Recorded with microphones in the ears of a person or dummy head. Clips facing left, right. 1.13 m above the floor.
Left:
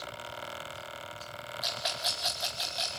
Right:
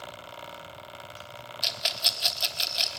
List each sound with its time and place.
1.6 s a rattle: 40° right (ahead or behind), 1.3 m